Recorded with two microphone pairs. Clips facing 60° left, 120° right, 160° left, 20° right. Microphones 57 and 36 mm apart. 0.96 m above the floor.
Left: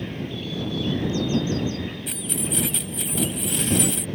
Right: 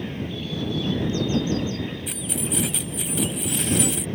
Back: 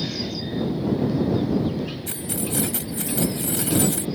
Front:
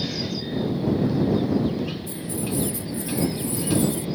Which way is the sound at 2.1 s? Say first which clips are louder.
Right 1 dB, even; 155° left.